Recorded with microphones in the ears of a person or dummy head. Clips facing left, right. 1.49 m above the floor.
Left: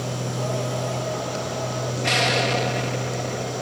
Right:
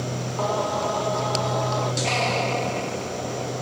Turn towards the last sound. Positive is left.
turn(degrees=20)  # may be behind; listen again after turning